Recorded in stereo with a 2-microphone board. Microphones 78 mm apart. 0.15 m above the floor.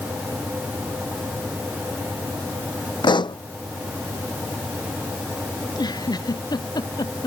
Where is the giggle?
65° left (ahead or behind).